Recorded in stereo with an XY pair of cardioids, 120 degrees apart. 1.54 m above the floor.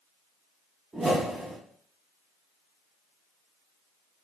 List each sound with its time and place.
0.9 s a whoosh: 20° right, 0.8 m